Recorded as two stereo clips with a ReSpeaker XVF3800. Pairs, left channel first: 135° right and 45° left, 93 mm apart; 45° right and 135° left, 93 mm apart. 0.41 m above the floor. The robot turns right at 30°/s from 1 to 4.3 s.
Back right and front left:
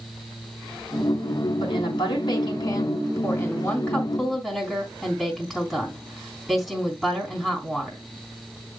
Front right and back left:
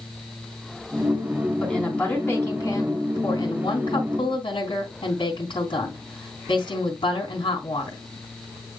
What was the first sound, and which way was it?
A woman speaking, 135° right.